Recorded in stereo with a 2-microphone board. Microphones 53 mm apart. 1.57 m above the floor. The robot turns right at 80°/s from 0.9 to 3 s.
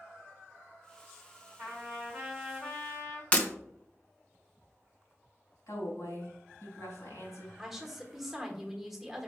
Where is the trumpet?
65° right, 2 m; by 3.2 s 50° left, 2 m.